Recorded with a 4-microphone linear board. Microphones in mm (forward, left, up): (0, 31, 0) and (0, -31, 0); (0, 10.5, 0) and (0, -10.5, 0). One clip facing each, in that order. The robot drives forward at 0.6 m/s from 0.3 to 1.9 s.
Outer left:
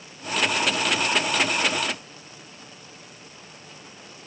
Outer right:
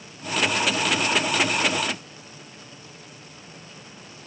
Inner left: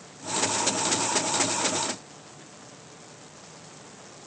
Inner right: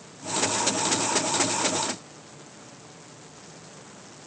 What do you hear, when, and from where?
Only background noise.